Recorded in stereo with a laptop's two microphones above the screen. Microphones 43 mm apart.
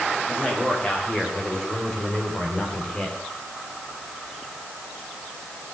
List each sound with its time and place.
0.3 s a man speaking: 15° left (ahead or behind), 4 m; by 3.2 s 20° left (ahead or behind), 2.5 m